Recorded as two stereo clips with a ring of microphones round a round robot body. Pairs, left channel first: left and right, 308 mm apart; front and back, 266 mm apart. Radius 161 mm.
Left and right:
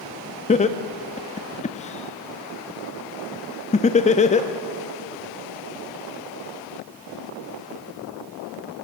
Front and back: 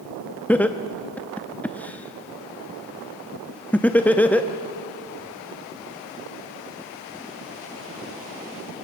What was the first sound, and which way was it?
Laughter, 75° left.